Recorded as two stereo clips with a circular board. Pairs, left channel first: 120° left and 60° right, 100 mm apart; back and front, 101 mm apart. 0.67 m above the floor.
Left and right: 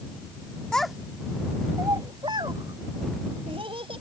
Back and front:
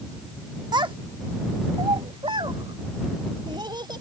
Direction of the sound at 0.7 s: 40° left.